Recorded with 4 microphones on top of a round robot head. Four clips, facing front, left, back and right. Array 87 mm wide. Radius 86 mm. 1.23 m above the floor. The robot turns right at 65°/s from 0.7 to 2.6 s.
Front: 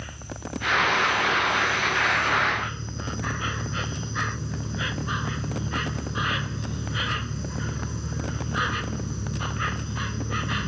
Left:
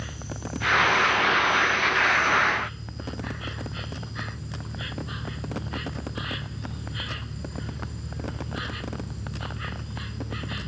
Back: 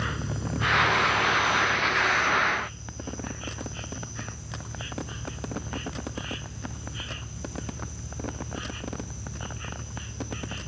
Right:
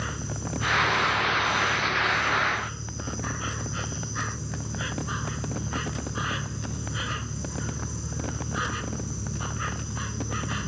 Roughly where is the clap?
No clap in this recording.